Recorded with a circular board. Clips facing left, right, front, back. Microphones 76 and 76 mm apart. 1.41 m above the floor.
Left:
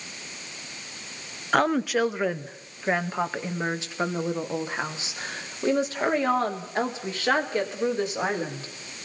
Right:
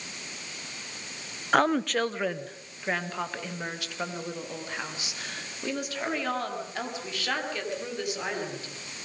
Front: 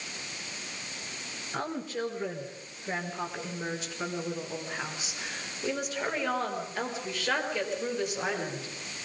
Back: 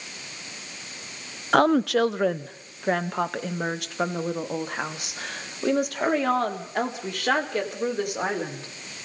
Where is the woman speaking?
Straight behind, 0.8 m; by 8.7 s 150° left, 5 m.